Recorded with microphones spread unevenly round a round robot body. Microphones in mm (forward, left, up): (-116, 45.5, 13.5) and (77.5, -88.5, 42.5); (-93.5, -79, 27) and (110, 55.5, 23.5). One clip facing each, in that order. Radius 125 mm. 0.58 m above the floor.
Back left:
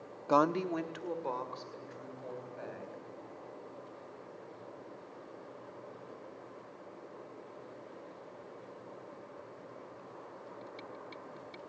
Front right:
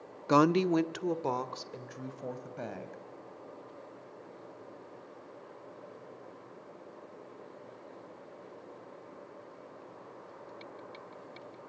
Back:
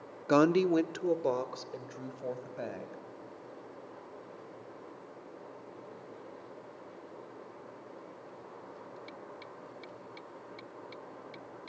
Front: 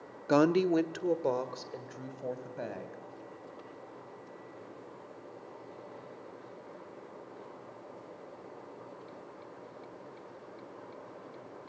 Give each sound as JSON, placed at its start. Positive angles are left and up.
{"t": 0.3, "sound": "a woman speaking", "azimuth_deg": -65, "distance_m": 0.6}